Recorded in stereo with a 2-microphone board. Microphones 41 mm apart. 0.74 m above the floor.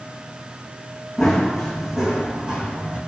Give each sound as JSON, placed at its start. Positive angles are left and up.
{"t": 1.2, "sound": "running footsteps", "side_deg": 0, "distance_m": 3.0}